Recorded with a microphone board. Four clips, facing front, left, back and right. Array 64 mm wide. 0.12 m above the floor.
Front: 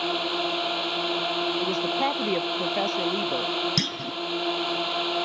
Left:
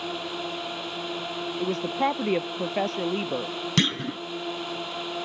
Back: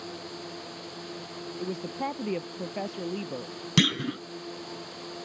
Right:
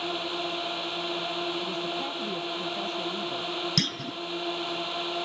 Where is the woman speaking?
65° left.